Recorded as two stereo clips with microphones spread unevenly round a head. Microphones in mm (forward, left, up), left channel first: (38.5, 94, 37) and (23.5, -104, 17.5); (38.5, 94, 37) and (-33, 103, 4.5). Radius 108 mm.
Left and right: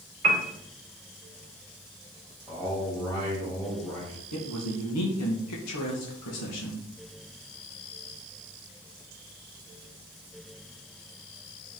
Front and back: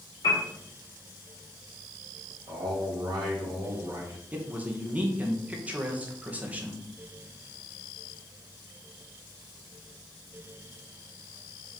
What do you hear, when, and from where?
0.2 s a piano: 45° right, 1.9 m
2.5 s a man speaking: 160° left, 3 m
4.3 s a man speaking: 100° left, 1.8 m